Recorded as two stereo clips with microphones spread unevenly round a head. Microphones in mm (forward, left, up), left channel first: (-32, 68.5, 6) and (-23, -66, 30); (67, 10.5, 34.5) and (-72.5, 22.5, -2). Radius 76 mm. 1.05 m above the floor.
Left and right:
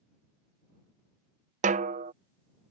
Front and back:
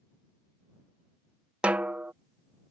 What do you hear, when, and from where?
1.6 s a snare drum: 110° right